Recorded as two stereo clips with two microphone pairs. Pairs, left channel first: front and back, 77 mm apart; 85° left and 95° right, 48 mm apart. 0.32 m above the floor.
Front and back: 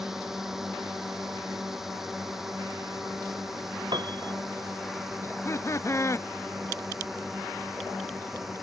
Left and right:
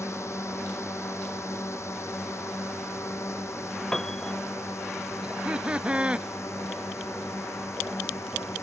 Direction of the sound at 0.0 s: 95° left.